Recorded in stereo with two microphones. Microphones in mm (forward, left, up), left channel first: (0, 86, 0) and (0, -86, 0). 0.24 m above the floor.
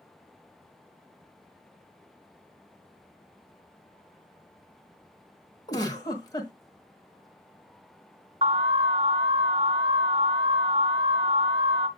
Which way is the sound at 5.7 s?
25° left (ahead or behind).